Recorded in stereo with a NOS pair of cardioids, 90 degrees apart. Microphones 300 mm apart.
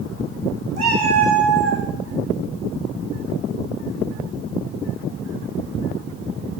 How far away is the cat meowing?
About 3 m.